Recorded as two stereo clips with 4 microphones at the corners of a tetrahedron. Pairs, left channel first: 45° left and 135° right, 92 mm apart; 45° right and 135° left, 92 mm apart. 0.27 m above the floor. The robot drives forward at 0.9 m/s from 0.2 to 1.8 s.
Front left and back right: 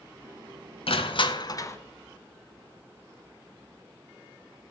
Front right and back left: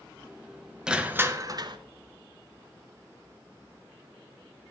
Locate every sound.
0.9 s crushing: 55° left, 1.0 m; by 1.8 s 105° left, 0.9 m